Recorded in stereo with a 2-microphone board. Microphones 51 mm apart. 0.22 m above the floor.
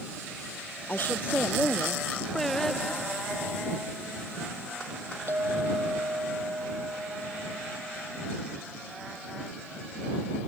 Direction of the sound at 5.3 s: 55° right (ahead or behind).